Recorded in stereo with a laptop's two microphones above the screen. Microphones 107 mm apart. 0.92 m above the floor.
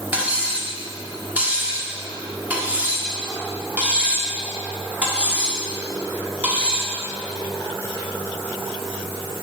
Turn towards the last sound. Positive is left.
turn(degrees=-15)  # may be behind; listen again after turning